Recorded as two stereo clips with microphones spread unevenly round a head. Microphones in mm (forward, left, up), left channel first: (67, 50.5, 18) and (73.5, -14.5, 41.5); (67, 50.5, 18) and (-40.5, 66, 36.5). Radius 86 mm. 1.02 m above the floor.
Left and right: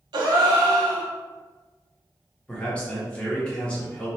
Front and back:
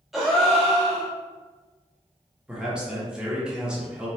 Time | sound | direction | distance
0.1 | a gasp | 95° right | 0.5 m
2.5 | a man speaking | 80° left | 0.9 m